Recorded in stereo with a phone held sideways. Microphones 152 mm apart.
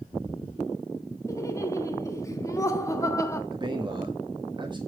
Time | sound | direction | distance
1.3 | laughter | 20° left (ahead or behind) | 1.2 m
3.5 | a man speaking | 30° right (ahead or behind) | 1.2 m